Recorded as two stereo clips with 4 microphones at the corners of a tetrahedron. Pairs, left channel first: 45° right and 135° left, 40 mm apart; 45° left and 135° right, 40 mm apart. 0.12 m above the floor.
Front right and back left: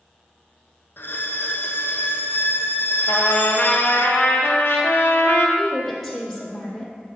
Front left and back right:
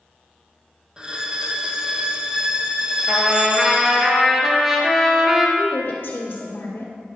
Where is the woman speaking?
30° left, 1.8 m.